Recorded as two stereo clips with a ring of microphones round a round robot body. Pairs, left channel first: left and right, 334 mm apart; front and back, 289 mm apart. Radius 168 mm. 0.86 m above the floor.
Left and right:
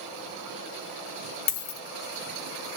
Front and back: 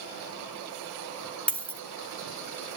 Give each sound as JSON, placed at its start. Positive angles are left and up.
{"t": 1.5, "sound": "a dropped coin", "azimuth_deg": 85, "distance_m": 0.8}